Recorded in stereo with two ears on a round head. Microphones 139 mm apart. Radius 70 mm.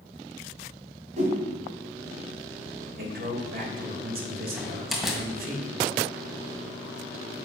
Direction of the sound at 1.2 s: 45° right (ahead or behind).